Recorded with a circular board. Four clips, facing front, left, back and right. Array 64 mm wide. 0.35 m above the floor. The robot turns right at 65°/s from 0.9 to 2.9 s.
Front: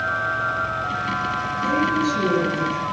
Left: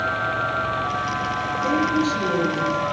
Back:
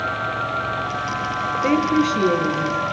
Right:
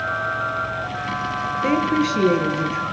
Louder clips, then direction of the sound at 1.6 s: Right 1 dB, back 2 dB; 150° right.